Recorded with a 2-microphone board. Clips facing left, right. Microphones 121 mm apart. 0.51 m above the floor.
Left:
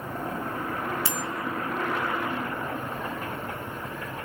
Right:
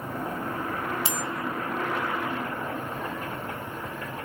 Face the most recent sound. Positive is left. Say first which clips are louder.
# even
turn(degrees=-20)  # may be behind; listen again after turning